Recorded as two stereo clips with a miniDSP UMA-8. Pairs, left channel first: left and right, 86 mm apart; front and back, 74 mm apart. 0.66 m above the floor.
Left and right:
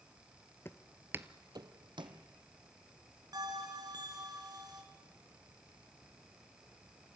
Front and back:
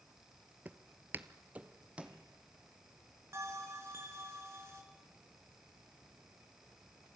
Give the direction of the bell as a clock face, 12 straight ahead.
4 o'clock.